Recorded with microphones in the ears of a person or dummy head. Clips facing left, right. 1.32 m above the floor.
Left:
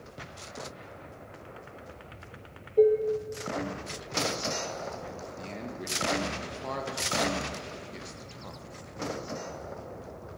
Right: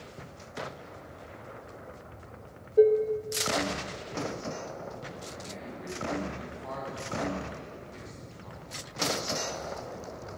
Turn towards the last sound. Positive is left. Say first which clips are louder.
# left 3 dB
turn(degrees=70)  # may be behind; listen again after turning